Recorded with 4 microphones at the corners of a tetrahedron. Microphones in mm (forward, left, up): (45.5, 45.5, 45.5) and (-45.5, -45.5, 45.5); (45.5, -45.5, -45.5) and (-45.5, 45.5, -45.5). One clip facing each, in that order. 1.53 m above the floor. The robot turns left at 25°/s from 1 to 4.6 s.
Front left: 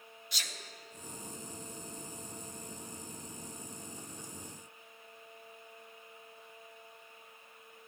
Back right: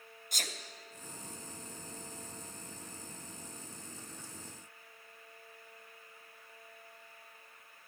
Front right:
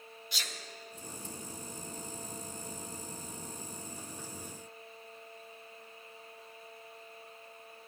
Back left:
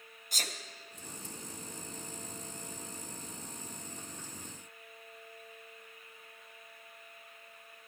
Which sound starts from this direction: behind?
A sneeze, at 0.3 s.